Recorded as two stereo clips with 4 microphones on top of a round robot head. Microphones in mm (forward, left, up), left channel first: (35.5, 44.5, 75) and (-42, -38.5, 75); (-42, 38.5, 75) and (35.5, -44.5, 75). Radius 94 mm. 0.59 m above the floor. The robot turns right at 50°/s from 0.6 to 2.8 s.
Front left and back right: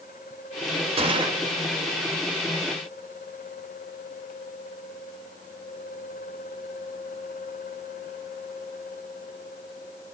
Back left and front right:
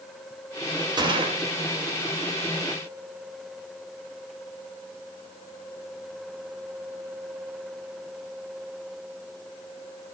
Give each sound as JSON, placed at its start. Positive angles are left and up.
{"t": 1.0, "sound": "a gunshot", "azimuth_deg": -100, "distance_m": 2.5}